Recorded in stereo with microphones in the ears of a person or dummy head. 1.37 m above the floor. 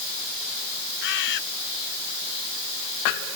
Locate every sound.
1.0 s a bird: 60° left (ahead or behind)